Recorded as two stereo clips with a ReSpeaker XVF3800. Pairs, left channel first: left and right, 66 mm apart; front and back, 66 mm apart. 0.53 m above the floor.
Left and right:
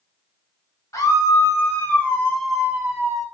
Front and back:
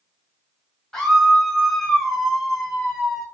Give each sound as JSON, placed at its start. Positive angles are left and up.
{"t": 0.9, "sound": "a scream", "azimuth_deg": 80, "distance_m": 1.2}